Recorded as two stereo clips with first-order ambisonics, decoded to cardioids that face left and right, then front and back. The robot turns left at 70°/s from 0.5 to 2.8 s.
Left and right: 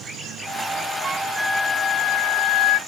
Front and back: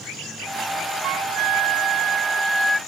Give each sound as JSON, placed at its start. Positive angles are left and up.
{"t": 1.0, "sound": "a flute", "azimuth_deg": -160}